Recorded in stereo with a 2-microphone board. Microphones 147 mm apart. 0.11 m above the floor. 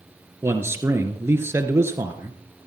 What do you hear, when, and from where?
0.4 s a man speaking: 20° right (ahead or behind), 1.7 m